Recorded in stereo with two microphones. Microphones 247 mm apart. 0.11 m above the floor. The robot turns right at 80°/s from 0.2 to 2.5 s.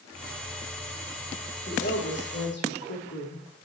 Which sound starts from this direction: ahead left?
A woman speaking, at 1.7 s.